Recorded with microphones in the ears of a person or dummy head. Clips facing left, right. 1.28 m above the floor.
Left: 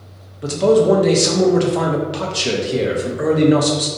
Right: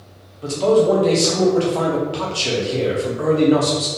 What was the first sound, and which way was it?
A man speaking, 20° left (ahead or behind).